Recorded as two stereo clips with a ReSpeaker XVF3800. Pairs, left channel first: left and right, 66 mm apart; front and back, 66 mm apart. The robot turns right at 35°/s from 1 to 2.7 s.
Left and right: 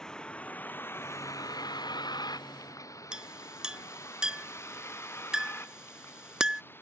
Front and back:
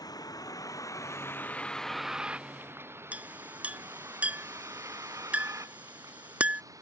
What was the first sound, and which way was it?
A vehicle, 10° left.